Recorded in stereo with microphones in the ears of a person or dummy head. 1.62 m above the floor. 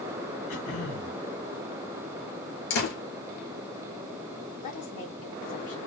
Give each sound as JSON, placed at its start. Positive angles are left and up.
{"t": 0.5, "sound": "throat clearing", "side_deg": 45, "distance_m": 2.5}
{"t": 2.7, "sound": "a door slam", "side_deg": 65, "distance_m": 3.5}
{"t": 4.6, "sound": "a woman speaking", "side_deg": 45, "distance_m": 2.5}